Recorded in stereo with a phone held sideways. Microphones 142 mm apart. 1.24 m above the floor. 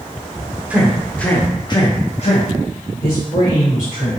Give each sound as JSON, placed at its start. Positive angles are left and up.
{"t": 0.7, "sound": "a man speaking", "side_deg": -10, "distance_m": 0.7}